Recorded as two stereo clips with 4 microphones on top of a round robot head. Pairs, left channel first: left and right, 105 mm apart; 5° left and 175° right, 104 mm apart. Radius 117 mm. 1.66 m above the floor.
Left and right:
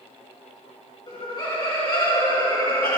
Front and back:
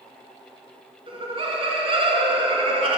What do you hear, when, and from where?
1.1 s laughter: 150° left, 2.5 m